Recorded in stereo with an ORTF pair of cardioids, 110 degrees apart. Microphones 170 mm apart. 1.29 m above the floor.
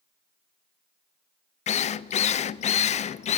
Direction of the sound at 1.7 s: 45° left.